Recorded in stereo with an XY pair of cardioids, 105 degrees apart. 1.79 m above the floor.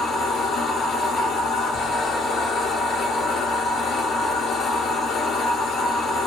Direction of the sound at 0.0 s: 60° left.